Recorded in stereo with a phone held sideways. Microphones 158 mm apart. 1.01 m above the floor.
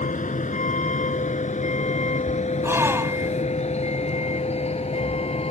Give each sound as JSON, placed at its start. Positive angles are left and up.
{"t": 0.0, "sound": "a vehicle", "side_deg": 55}
{"t": 2.6, "sound": "a gasp", "side_deg": -15}